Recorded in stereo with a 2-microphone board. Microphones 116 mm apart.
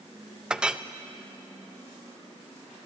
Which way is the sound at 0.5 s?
10° right (ahead or behind).